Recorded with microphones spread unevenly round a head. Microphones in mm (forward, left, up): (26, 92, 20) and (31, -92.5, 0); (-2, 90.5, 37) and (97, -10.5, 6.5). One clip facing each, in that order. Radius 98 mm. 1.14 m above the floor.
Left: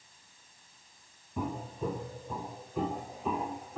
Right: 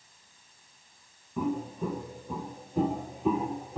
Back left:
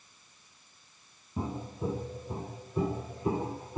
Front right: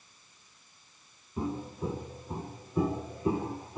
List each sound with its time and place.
1.4 s footsteps: 175° left, 1.6 m; by 3.8 s 155° right, 2.5 m